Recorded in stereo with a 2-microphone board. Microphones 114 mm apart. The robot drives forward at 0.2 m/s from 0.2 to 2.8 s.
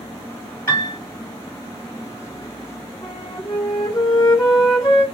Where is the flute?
25° left (ahead or behind), 1.9 m.